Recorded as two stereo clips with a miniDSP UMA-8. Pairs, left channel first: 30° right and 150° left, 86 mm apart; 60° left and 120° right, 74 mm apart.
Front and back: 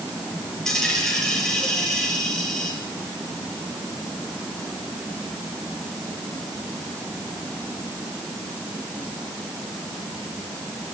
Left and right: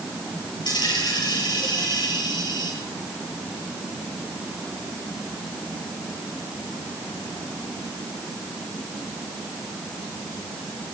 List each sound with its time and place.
0.7 s a dropped coin: 55° left, 9 m